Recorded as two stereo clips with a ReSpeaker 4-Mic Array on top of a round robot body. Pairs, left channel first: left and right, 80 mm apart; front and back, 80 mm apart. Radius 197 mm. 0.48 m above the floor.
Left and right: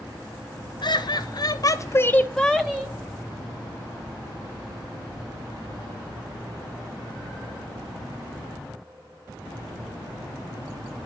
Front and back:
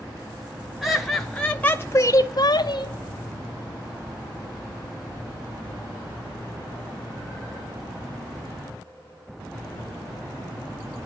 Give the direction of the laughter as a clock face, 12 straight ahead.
9 o'clock.